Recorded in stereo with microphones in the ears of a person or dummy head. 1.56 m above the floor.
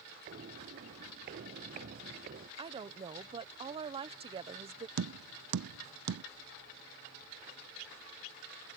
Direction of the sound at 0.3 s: 35° right (ahead or behind).